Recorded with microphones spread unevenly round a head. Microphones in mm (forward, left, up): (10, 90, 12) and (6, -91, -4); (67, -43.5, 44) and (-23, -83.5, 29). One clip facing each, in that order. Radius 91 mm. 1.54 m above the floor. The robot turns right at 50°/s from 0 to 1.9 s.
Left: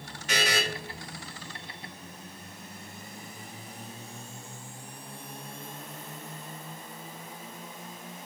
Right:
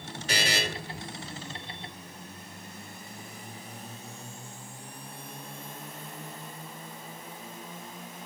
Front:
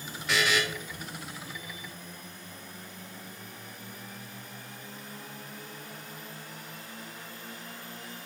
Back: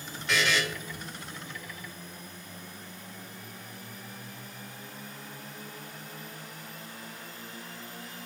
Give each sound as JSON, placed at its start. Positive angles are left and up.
{"t": 0.3, "sound": "a buzzer", "azimuth_deg": -50, "distance_m": 0.8}